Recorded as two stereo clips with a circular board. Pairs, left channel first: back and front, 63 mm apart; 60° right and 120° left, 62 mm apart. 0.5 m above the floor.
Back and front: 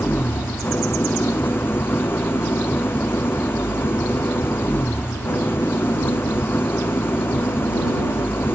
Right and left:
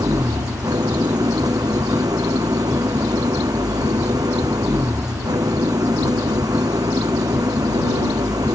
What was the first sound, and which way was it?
An engine running, 125° left.